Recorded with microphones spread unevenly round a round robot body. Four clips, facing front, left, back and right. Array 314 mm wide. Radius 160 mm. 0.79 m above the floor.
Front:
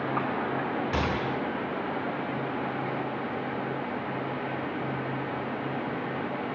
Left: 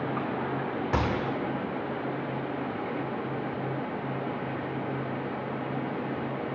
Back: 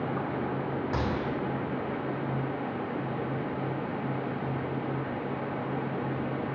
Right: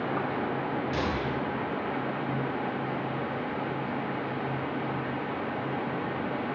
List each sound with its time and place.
0.9 s a gunshot: 70° left, 2 m